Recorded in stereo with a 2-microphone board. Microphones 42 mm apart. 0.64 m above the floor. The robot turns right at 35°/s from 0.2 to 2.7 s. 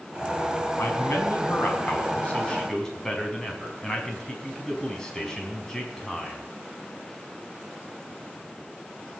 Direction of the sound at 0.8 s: 100° left.